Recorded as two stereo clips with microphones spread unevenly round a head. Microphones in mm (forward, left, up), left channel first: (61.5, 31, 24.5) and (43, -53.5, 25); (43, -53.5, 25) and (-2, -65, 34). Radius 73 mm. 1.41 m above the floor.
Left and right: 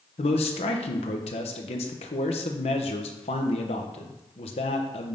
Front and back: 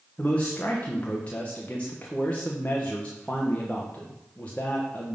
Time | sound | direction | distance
0.2 | a man speaking | 95° left | 0.9 m